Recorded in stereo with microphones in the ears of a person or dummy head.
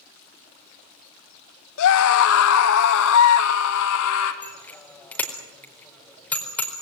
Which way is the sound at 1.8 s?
75° left (ahead or behind).